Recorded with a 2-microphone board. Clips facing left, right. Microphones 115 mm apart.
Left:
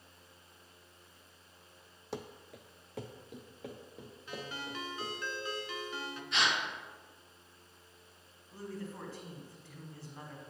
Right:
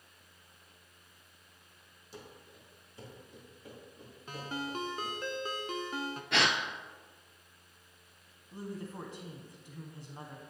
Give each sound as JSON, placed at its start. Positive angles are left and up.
{"t": 2.1, "sound": "running footsteps", "side_deg": 80, "distance_m": 0.6}
{"t": 4.3, "sound": "a ringtone", "side_deg": -45, "distance_m": 0.6}
{"t": 6.3, "sound": "a gasp", "side_deg": -75, "distance_m": 0.7}
{"t": 8.5, "sound": "a woman speaking", "side_deg": -20, "distance_m": 1.1}